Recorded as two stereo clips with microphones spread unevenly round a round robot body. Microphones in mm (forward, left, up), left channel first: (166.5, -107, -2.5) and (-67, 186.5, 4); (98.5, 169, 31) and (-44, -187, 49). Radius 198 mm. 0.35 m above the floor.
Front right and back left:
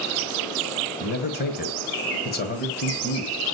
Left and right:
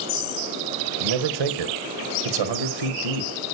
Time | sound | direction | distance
1.0 | a man speaking | 115° right | 1.8 m